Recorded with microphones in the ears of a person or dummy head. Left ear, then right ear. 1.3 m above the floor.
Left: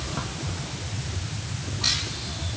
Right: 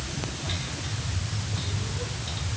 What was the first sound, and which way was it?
Only background noise.